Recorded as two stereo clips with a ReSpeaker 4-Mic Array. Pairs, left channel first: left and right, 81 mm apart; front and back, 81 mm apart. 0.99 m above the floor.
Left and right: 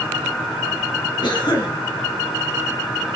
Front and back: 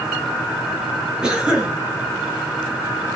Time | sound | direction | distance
1.2 | a cough | 100° left | 1.6 m